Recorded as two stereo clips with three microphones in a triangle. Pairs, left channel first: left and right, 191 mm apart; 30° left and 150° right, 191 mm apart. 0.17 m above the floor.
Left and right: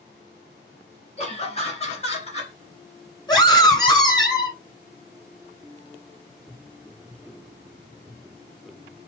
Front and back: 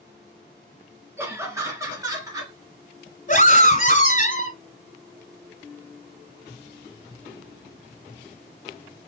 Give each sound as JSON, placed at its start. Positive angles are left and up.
{"t": 1.2, "sound": "laughter", "azimuth_deg": 135, "distance_m": 2.5}
{"t": 3.3, "sound": "a scream", "azimuth_deg": 35, "distance_m": 1.8}